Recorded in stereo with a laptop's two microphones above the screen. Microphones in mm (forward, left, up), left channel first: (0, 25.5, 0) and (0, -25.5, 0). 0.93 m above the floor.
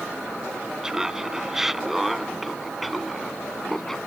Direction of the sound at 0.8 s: 10° right (ahead or behind).